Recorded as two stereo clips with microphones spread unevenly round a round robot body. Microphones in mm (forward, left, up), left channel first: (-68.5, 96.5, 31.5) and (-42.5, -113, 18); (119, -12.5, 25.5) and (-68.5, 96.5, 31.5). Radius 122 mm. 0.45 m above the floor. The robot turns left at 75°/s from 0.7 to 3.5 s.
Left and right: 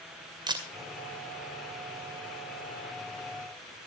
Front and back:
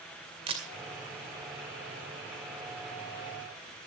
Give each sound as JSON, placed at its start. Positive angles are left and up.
{"t": 0.5, "sound": "a camera shutter", "azimuth_deg": -145, "distance_m": 2.0}